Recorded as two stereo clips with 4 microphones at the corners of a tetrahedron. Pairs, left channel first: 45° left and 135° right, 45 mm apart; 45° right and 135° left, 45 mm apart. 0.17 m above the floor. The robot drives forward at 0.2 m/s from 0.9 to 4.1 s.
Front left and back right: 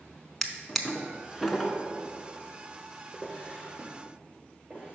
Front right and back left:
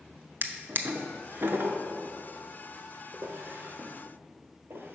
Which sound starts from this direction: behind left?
A drawer, at 0.4 s.